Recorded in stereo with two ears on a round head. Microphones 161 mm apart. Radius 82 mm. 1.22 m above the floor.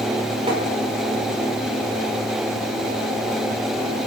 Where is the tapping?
30° right (ahead or behind), 4.5 m.